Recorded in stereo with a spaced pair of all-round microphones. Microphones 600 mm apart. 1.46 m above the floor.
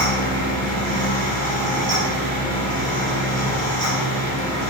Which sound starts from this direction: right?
A fan, at 0.0 s.